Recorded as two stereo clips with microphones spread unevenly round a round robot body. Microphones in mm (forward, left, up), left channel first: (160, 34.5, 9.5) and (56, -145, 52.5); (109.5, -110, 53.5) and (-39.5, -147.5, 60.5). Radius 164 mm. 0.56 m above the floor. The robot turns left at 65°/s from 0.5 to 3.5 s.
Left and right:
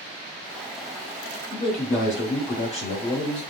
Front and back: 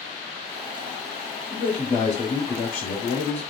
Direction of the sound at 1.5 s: 110° left.